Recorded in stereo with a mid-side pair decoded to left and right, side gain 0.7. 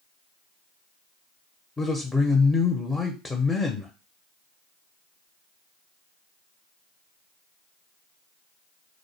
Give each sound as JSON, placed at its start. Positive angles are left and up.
{"t": 1.8, "sound": "a man speaking", "azimuth_deg": 15, "distance_m": 0.6}